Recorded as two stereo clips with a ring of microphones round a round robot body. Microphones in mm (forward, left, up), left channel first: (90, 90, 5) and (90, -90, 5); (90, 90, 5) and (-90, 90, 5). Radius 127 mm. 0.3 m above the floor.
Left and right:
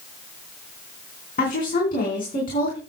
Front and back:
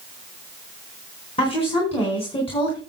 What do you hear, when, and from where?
1.4 s a woman speaking: 55° left, 4 m